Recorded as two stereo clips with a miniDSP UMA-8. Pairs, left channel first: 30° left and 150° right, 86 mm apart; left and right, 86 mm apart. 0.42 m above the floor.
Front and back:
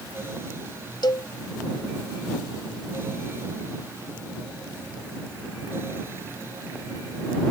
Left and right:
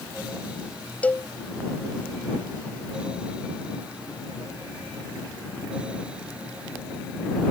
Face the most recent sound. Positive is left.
turn(degrees=20)